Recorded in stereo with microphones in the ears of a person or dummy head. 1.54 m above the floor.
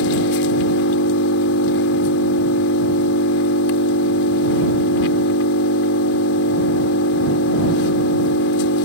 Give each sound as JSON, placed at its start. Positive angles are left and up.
{"t": 0.0, "sound": "an engine running", "side_deg": 70}